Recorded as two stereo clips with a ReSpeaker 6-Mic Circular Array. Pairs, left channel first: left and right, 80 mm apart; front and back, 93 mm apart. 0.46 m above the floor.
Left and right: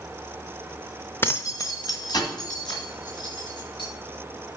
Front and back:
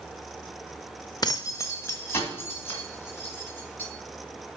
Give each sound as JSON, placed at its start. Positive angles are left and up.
{"t": 1.2, "sound": "keys jangling", "azimuth_deg": 30, "distance_m": 0.7}